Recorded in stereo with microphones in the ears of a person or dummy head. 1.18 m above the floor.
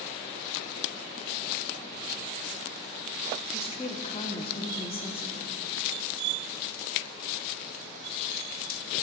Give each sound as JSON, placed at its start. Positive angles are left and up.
{"t": 3.5, "sound": "a woman speaking", "side_deg": 30, "distance_m": 0.8}